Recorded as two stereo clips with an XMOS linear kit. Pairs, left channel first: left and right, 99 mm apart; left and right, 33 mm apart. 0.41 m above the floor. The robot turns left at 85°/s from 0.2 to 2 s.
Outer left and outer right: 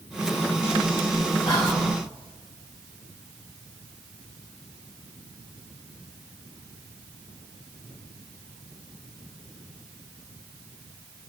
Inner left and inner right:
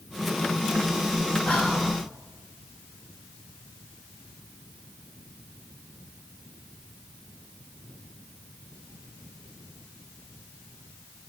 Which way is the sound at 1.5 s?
110° left.